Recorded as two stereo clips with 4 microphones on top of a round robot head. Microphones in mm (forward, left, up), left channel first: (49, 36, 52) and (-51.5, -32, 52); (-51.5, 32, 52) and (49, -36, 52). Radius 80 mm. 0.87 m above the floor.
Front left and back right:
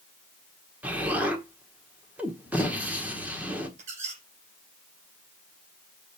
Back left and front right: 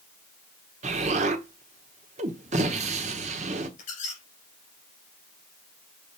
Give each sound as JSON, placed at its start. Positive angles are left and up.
{"t": 0.8, "sound": "an explosion", "azimuth_deg": -70, "distance_m": 1.2}
{"t": 3.8, "sound": "a squeak", "azimuth_deg": 175, "distance_m": 3.0}